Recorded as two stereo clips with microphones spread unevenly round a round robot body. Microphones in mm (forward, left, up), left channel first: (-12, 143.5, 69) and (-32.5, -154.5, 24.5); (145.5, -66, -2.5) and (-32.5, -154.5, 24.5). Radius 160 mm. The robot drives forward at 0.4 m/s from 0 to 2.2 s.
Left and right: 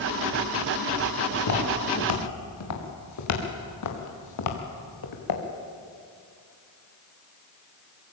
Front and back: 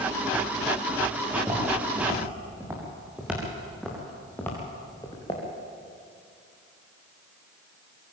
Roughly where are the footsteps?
Behind left.